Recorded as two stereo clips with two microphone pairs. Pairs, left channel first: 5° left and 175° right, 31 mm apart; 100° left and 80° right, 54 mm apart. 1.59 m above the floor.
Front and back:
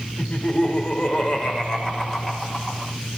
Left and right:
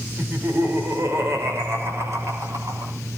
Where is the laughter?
35° right, 6 m; by 2.9 s 70° right, 7 m.